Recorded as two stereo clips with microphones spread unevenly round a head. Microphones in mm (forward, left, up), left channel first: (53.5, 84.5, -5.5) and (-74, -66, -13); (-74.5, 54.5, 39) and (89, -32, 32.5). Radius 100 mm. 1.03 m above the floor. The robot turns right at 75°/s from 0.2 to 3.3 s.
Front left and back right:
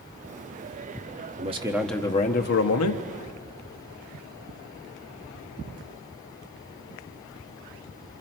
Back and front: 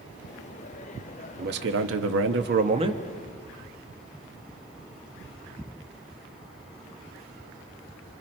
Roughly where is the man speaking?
Right.